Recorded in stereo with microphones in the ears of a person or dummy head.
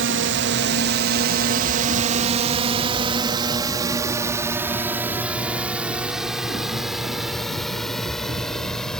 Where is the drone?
65° right (ahead or behind); by 9.0 s 5° left (ahead or behind).